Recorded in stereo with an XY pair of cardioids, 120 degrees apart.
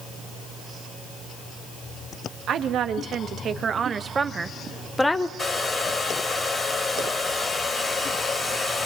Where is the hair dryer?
25° left, 3 m.